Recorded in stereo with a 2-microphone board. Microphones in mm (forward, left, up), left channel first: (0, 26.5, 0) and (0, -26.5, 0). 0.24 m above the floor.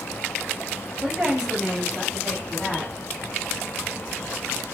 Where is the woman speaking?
25° right (ahead or behind), 1.0 m; by 2.9 s 25° left (ahead or behind), 1.1 m.